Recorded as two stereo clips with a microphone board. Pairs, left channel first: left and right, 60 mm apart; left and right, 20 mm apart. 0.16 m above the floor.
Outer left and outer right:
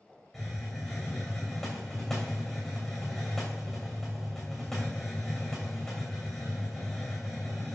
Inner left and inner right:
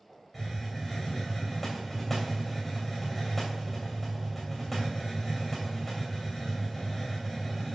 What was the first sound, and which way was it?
A hiss, 5° left (ahead or behind).